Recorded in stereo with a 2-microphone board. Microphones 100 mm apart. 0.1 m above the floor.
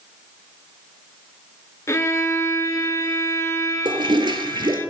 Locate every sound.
1.9 s a violin: 30° left (ahead or behind), 0.6 m
3.9 s a toilet flushing: 50° right (ahead or behind), 0.7 m